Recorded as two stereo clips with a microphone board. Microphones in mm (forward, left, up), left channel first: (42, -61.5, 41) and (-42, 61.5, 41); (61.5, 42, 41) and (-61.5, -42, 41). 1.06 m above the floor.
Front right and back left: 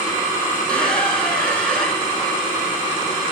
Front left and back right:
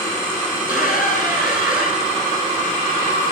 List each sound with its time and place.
0.5 s a squeak: 25° left, 3 m